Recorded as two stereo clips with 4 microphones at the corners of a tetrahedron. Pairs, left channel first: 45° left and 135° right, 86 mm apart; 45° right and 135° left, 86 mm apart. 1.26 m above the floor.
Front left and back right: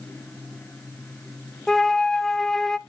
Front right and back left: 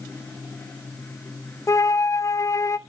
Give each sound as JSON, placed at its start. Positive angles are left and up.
{"t": 1.7, "sound": "a flute", "azimuth_deg": -35, "distance_m": 0.6}